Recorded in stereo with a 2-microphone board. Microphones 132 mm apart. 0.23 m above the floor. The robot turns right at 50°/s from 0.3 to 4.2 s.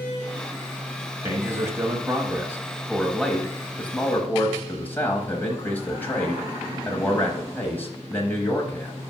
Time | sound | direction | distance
1.2 | a man speaking | 20° right (ahead or behind) | 0.9 m